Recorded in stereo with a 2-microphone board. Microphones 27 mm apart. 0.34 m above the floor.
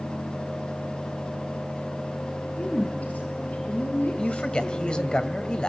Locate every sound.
2.6 s a woman speaking: 75° left (ahead or behind), 7 m; by 5.2 s 80° left, 7 m
4.2 s a man speaking: 35° left (ahead or behind), 2 m